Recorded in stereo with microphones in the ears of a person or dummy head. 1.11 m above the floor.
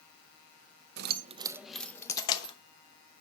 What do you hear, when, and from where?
1.0 s keys jangling: 55° right (ahead or behind), 0.5 m; by 2.5 s 35° left (ahead or behind), 1.0 m